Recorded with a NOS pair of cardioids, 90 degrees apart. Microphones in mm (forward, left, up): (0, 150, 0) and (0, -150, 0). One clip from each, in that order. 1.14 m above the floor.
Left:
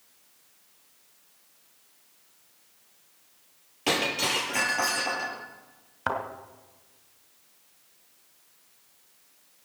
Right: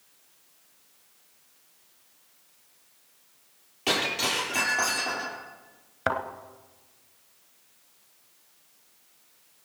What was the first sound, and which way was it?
Breaking glass, 25° left.